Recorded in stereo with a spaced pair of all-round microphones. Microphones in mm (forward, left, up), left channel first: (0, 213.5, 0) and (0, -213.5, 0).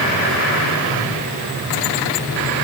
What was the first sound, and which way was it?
Only background noise.